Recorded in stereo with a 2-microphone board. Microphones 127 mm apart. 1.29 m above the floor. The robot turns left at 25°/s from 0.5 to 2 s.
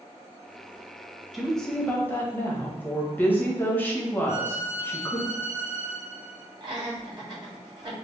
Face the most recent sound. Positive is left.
turn(degrees=-35)  # may be behind; listen again after turning